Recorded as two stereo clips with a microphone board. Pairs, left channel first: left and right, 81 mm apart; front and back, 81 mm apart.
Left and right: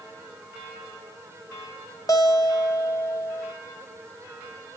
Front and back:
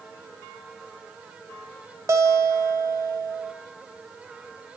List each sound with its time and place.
2.1 s a guitar: 130° left, 1.2 m